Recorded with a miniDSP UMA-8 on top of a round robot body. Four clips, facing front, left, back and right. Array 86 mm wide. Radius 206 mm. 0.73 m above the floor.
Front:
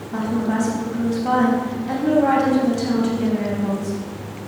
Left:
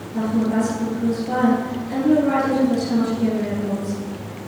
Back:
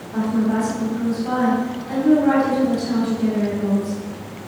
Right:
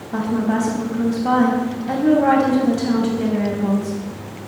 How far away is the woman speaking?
About 5 m.